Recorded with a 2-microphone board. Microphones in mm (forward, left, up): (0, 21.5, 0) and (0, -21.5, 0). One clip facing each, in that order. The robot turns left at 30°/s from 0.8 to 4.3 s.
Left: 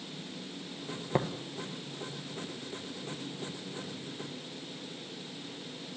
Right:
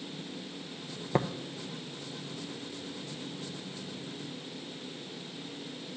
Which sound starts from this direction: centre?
Tapping, at 1.1 s.